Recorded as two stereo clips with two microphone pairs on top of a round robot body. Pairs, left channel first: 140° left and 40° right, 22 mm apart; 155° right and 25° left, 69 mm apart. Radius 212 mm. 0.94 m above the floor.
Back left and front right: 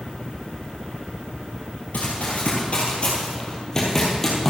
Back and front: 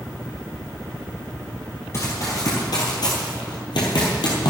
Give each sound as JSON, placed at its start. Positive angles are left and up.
{"t": 1.9, "sound": "running footsteps", "azimuth_deg": 160, "distance_m": 1.6}